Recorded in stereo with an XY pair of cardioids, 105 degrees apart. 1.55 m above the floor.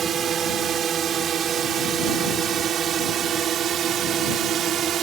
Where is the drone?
60° right; by 5.0 s 65° right.